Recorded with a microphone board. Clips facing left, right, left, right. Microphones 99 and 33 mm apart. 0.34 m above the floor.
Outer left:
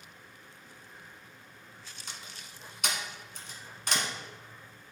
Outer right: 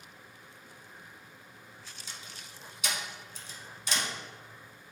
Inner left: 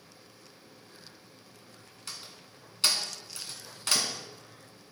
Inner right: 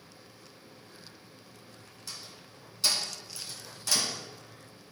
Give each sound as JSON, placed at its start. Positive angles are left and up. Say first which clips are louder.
{"t": 2.1, "sound": "a door slam", "louder": "outer left 2 dB, inner left 1 dB", "side_deg": 60, "distance_m": 2.0}